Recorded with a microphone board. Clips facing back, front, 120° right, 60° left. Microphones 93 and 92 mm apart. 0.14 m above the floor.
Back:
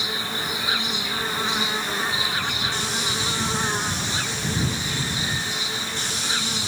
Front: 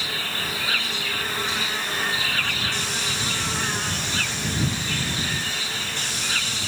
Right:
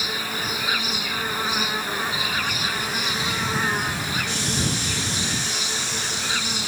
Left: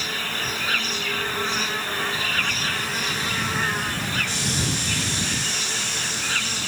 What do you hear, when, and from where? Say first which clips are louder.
0.0 s an insect: back 1 dB, right 1 dB; 175° right